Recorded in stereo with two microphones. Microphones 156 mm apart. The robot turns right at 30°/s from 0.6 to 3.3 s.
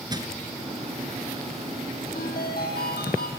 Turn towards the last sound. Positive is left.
turn(degrees=105)